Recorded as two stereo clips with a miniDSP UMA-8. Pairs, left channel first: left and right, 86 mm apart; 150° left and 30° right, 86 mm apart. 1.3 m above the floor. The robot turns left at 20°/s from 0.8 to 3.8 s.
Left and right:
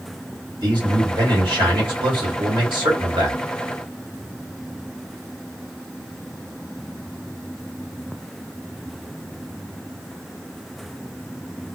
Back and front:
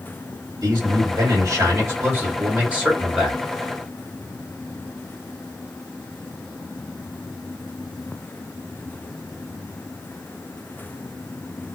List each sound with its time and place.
0.6 s a man speaking: 65° right, 1.6 m; by 3.4 s 115° right, 1.6 m